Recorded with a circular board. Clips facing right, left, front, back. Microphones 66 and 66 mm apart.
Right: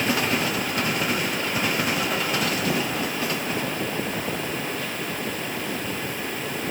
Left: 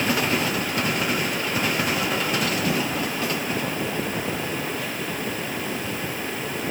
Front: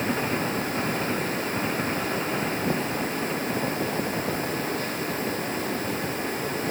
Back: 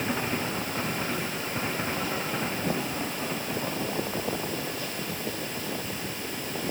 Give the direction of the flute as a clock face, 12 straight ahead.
No flute in this recording.